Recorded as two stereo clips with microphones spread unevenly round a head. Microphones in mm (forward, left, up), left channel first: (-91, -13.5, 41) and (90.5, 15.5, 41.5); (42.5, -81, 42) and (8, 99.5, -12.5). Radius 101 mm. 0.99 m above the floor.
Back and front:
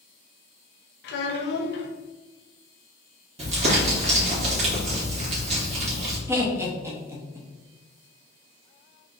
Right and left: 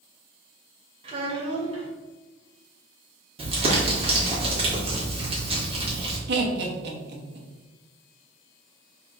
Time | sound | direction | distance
1.0 | a child speaking | 160° left | 0.7 m
3.4 | crumpling | 60° left | 1.7 m
6.3 | laughter | 85° left | 1.1 m